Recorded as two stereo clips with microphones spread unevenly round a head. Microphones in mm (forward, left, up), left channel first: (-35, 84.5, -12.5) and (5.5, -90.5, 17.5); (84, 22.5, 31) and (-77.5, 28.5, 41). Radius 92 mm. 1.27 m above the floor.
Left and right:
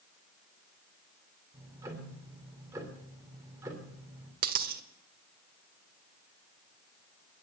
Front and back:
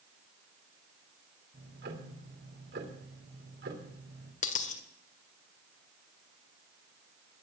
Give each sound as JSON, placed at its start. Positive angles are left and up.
{"t": 1.5, "sound": "ticking", "azimuth_deg": -150, "distance_m": 3.0}
{"t": 4.4, "sound": "a dropped coin", "azimuth_deg": -50, "distance_m": 1.6}